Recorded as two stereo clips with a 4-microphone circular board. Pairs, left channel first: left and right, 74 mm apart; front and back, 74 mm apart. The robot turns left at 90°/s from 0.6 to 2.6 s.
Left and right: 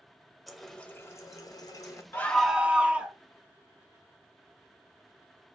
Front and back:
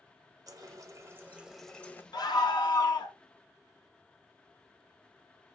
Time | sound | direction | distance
0.5 | a running tap | straight behind | 0.6 m
2.1 | a scream | 30° left | 0.9 m